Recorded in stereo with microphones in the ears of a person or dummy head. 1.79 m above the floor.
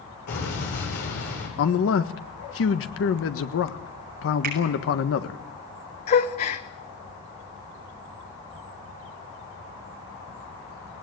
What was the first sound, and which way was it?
An explosion, 55° left (ahead or behind).